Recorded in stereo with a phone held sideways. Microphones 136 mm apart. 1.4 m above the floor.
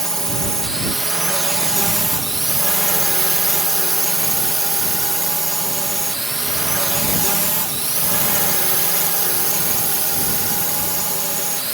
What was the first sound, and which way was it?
A drone, 5° left (ahead or behind).